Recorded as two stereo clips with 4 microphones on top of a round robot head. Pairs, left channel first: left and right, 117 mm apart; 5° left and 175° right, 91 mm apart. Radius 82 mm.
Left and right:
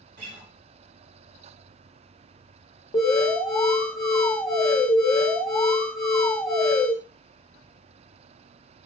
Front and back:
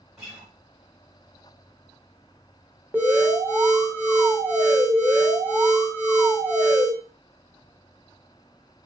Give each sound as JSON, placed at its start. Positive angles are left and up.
{"t": 0.2, "sound": "a guitar", "azimuth_deg": -90, "distance_m": 1.4}
{"t": 2.9, "sound": "an alarm", "azimuth_deg": 115, "distance_m": 1.1}